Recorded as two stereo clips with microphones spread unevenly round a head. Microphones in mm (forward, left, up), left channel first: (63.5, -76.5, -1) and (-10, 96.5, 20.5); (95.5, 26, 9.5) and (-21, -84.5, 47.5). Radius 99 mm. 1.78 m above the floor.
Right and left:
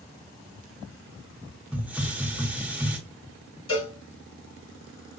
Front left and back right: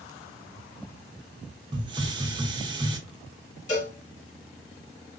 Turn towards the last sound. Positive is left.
turn(degrees=-5)